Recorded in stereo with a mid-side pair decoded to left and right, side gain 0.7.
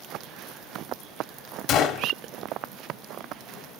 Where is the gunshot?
50° left, 1.5 m.